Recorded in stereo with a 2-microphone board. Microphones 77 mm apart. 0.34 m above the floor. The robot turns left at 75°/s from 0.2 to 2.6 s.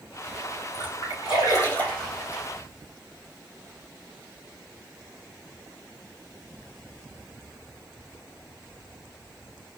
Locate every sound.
0.7 s a splash: 75° left (ahead or behind), 4.5 m; by 2.4 s 25° right (ahead or behind), 4.5 m